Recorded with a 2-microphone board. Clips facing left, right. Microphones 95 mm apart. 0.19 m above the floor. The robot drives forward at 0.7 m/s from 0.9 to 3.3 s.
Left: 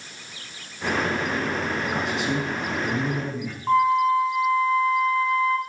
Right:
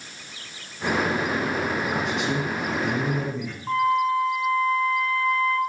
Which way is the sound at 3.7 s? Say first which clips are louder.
Left 3 dB; 20° left (ahead or behind).